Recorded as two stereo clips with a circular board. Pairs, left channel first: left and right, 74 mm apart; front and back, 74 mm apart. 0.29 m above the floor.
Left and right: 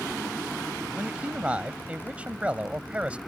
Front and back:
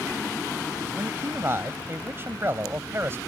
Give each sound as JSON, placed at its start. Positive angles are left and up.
{"t": 0.9, "sound": "a man speaking", "azimuth_deg": -150}